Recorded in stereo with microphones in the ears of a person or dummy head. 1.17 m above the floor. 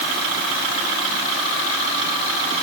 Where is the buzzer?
No buzzer in this recording.